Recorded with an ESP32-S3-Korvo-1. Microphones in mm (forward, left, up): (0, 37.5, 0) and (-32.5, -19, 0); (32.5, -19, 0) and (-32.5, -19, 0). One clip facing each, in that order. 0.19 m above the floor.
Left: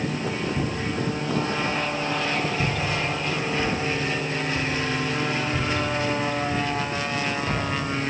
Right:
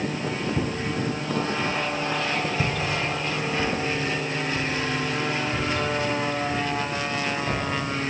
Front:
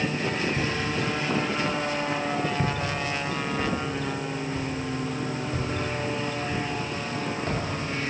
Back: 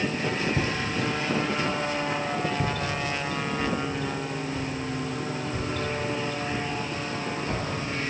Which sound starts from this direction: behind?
Footsteps, at 0.6 s.